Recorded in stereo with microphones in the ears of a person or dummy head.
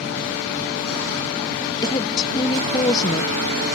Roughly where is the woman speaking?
Left.